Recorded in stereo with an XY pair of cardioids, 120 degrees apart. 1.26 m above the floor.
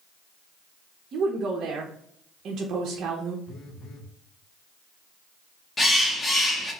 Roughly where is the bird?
Ahead.